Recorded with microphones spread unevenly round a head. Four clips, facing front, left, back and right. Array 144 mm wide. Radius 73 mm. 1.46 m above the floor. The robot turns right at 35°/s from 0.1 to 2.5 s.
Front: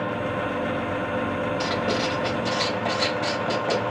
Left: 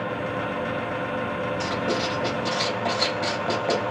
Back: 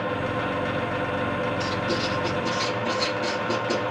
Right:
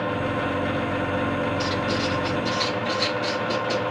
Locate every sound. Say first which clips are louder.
1.6 s writing: right 1 dB, front 2 dB; 20° left, 4.5 m; by 3.9 s 50° left, 4.5 m